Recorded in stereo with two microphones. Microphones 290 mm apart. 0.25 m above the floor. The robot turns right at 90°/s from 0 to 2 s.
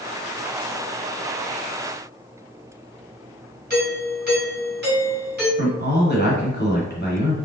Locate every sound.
3.7 s a doorbell: 35° right (ahead or behind), 1.9 m
5.6 s a man speaking: 35° left (ahead or behind), 1.2 m